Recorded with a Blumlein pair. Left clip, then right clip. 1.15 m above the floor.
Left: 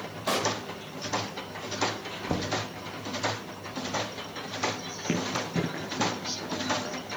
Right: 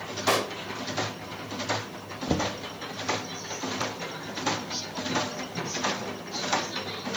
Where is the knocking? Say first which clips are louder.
Right 2 dB; 5° right, 0.7 m.